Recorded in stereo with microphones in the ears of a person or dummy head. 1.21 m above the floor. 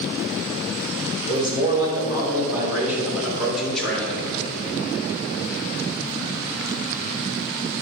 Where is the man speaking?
30° right (ahead or behind), 3.5 m; by 4.3 s 5° left (ahead or behind), 3.5 m.